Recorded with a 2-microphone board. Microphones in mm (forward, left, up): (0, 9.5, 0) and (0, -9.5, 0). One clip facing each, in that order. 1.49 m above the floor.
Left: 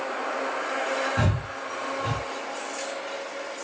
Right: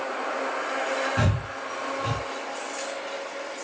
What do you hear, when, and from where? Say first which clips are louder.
1.2 s breathing: even; 30° right (ahead or behind), 1.5 m